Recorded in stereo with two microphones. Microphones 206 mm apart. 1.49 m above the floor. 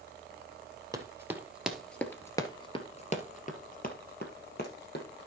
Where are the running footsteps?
15° right (ahead or behind), 2 m; by 5.3 s 55° left (ahead or behind), 3 m.